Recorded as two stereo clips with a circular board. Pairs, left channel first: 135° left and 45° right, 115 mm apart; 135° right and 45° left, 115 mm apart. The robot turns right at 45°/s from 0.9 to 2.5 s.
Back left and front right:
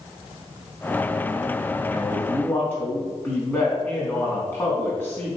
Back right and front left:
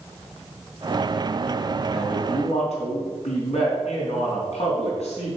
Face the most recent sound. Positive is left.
turn(degrees=-155)